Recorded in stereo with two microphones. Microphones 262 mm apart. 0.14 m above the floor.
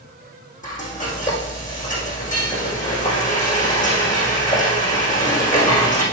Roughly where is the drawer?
No drawer in this recording.